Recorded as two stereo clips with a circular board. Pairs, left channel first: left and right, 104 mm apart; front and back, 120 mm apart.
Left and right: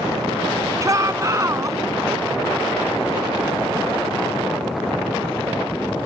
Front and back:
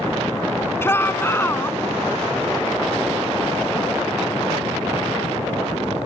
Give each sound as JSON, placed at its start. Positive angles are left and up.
{"t": 0.8, "sound": "a shout", "azimuth_deg": -55}